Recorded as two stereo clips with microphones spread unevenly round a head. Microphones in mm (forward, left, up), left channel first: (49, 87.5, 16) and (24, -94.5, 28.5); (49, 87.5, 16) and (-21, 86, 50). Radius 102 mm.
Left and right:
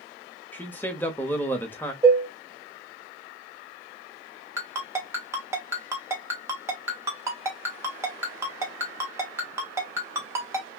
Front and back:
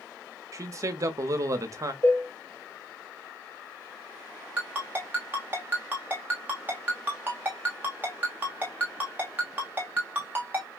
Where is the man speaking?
165° left, 0.8 m.